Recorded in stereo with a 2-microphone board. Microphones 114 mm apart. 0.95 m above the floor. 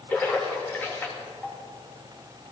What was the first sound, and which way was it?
A splash, 15° left (ahead or behind).